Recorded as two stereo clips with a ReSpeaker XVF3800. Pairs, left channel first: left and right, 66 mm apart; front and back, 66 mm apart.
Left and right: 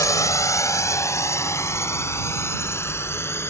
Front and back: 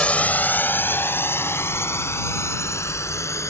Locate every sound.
0.0 s a drone: 70° left; by 3.5 s 40° left